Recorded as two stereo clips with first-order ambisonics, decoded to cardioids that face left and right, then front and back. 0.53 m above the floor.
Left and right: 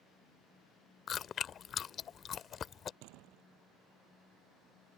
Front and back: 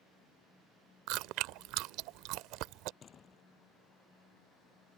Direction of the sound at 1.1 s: 150° left.